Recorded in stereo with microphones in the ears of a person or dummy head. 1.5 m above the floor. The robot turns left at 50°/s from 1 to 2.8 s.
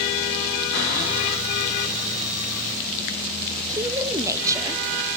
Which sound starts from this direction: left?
A cupboard door, at 0.7 s.